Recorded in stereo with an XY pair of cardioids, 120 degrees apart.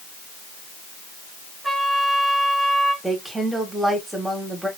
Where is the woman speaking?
10° right, 2 m.